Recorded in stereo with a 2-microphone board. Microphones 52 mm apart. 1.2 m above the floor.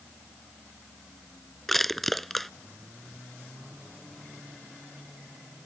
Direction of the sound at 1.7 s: 5° left (ahead or behind).